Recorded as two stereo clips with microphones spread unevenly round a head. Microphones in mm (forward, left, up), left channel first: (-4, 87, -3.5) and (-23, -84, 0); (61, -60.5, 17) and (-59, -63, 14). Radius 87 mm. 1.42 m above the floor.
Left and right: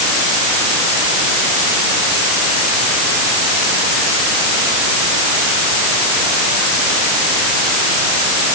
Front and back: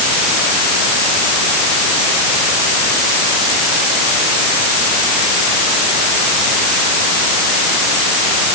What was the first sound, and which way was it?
Only background noise.